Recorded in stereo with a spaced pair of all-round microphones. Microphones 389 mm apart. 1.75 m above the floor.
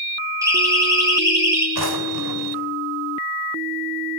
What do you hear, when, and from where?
0.4 s a siren: 10° right (ahead or behind), 7.5 m
1.8 s a drawer: 70° right (ahead or behind), 4 m